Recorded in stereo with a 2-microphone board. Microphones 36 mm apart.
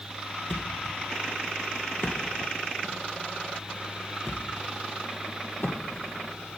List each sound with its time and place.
0.5 s a thud: 55° left (ahead or behind), 2.5 m